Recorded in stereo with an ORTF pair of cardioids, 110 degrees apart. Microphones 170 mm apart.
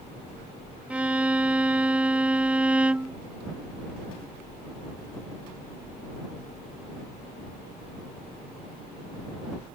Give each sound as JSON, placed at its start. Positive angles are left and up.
{"t": 0.9, "sound": "a violin", "azimuth_deg": -5}